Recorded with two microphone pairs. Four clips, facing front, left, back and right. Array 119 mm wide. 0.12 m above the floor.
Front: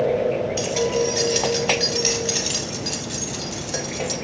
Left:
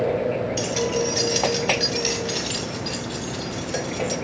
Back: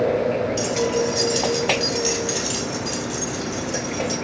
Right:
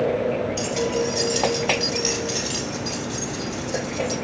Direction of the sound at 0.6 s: 60° left.